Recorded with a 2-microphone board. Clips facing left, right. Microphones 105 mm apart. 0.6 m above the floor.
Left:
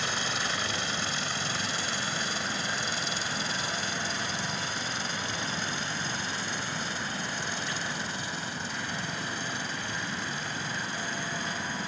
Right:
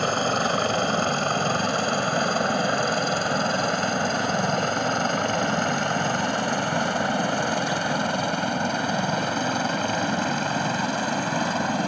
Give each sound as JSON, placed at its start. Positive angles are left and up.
{"t": 0.0, "sound": "a helicopter", "side_deg": -50}